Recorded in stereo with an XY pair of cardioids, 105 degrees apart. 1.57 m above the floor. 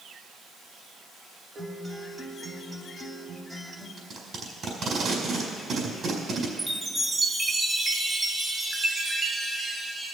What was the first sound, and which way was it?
A guitar, 35° right.